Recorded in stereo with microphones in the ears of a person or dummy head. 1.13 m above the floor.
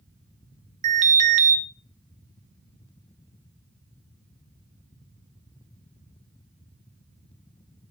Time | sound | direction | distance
0.8 | an alarm | 40° right (ahead or behind) | 1.3 m